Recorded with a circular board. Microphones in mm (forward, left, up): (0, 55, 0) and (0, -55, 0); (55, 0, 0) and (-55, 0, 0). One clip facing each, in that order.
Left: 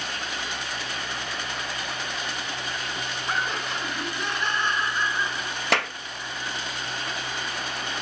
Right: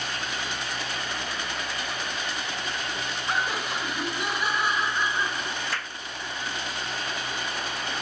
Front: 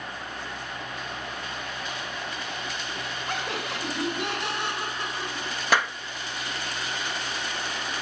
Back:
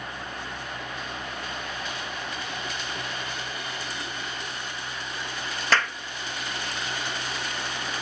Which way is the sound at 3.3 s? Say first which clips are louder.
Right 1 dB, front 4 dB; 5° right.